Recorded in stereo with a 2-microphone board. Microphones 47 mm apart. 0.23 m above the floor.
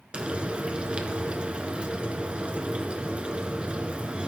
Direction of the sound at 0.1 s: 20° right (ahead or behind).